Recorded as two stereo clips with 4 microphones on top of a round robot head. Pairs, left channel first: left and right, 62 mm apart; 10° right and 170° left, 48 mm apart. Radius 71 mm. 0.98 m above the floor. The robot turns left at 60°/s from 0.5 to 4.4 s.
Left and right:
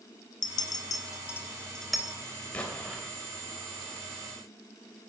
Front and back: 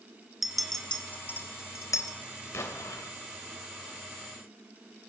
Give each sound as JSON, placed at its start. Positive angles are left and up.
{"t": 0.4, "sound": "a clink", "azimuth_deg": 85, "distance_m": 1.7}
{"t": 2.5, "sound": "an explosion", "azimuth_deg": 20, "distance_m": 3.0}